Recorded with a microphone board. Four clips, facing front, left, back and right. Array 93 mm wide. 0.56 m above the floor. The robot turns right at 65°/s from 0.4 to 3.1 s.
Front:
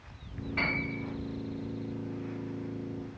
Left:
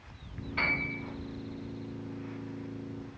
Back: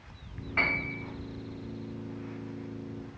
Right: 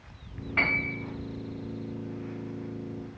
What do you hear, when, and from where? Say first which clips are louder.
0.6 s a piano: right 4 dB, back 2 dB; 125° right, 0.8 m; by 1.0 s 100° right, 0.8 m